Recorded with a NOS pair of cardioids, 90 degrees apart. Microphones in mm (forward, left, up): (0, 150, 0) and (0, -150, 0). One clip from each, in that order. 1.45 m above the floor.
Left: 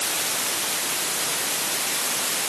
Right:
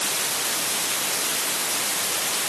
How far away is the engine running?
No engine running in this recording.